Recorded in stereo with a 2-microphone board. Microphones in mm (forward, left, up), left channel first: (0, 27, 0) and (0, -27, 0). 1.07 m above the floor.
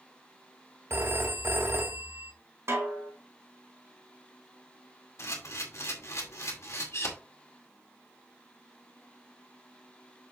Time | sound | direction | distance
0.9 | a phone ringing | 45° right (ahead or behind) | 0.9 m
2.7 | a snare drum | 50° right (ahead or behind) | 4.5 m
5.2 | a camera shutter | 55° left (ahead or behind) | 2 m